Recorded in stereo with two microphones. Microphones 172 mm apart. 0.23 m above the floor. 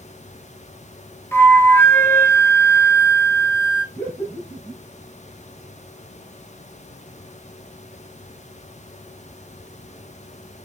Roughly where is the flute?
Centre.